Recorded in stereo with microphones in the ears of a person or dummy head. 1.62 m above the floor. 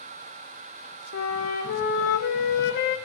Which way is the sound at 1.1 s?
55° left (ahead or behind).